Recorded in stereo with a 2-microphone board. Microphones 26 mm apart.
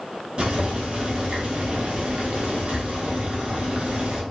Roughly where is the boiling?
Right.